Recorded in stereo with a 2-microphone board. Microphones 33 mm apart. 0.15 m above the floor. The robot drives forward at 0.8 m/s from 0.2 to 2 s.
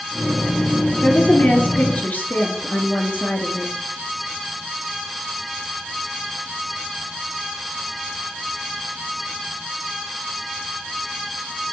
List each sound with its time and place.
1.0 s a woman speaking: 45° left (ahead or behind), 2 m; by 3.7 s 55° left (ahead or behind), 1.9 m